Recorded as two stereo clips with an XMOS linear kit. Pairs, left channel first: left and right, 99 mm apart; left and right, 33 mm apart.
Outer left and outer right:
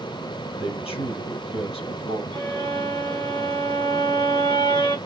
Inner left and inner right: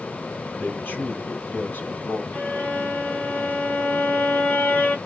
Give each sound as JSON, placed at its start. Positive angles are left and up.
{"t": 0.6, "sound": "a man speaking", "side_deg": 75, "distance_m": 4.0}
{"t": 2.3, "sound": "a violin", "side_deg": 50, "distance_m": 3.5}